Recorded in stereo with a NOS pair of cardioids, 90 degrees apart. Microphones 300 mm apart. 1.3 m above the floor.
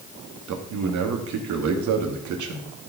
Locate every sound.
0.5 s a man speaking: 70° right, 2.0 m